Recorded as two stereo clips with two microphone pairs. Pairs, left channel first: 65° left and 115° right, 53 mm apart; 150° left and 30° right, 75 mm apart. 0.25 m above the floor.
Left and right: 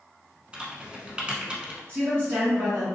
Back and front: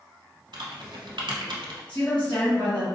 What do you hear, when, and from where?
0.5 s typing on a keyboard: 45° right, 0.7 m
1.9 s a woman speaking: 145° right, 1.8 m